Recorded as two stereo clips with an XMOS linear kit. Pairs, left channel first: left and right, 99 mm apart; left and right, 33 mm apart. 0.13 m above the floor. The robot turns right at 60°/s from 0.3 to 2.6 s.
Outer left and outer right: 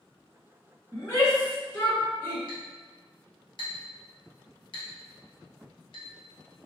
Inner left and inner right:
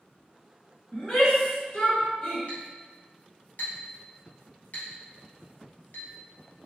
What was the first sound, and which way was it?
A shout, 25° left (ahead or behind).